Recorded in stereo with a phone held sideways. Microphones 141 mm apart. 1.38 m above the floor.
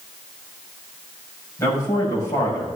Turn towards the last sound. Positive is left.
turn(degrees=20)  # may be behind; listen again after turning